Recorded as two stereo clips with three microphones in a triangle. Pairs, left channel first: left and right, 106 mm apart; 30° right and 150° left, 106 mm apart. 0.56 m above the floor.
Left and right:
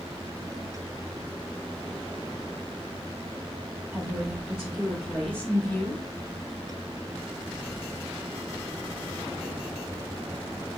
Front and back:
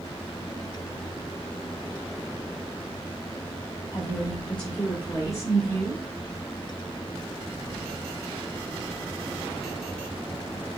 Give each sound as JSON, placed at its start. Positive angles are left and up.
{"t": 3.9, "sound": "a woman speaking", "azimuth_deg": -15, "distance_m": 1.6}